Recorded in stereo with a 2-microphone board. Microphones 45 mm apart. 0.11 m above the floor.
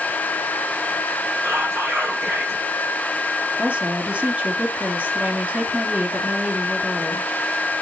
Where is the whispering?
70° right (ahead or behind), 7 m.